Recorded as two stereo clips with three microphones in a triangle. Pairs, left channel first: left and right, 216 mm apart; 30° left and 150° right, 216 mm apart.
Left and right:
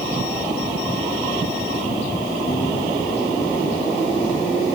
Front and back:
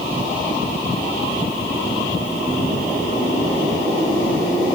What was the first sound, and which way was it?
Only background noise.